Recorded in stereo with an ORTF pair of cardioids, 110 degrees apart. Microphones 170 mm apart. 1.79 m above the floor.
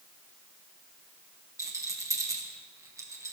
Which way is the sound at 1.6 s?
20° right.